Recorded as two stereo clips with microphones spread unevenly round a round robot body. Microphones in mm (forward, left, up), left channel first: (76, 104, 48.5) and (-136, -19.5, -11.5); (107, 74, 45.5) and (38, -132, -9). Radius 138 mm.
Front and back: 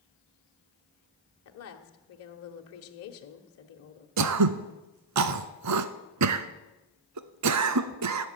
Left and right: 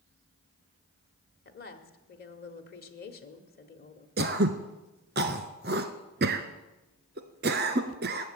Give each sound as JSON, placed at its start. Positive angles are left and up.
{"t": 1.4, "sound": "a woman speaking", "azimuth_deg": 30, "distance_m": 1.4}
{"t": 4.2, "sound": "throat clearing", "azimuth_deg": -165, "distance_m": 0.9}